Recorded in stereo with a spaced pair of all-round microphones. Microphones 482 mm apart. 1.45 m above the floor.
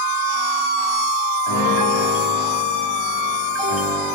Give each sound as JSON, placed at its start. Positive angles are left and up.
{"t": 1.5, "sound": "a piano", "side_deg": 65, "distance_m": 4.5}